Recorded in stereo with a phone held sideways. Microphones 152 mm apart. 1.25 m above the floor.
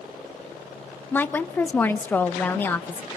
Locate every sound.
1.1 s a woman speaking: 15° left (ahead or behind), 1.3 m